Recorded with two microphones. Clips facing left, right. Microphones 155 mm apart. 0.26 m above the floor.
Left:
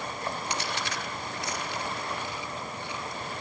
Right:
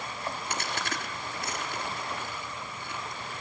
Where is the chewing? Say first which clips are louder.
Left 1 dB; 50° right (ahead or behind), 4 m.